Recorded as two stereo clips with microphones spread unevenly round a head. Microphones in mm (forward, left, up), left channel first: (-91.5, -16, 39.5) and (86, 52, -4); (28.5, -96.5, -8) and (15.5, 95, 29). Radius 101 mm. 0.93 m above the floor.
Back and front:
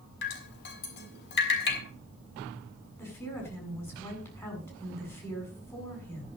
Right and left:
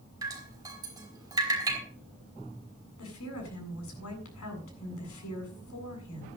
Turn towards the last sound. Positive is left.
turn(degrees=-80)